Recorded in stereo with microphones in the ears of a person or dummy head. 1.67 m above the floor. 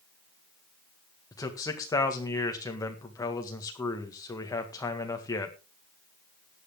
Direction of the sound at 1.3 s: 15° left (ahead or behind).